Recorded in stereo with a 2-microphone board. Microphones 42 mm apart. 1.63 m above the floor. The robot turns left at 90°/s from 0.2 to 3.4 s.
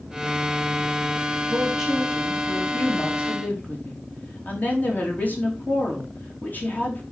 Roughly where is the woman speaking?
Behind right.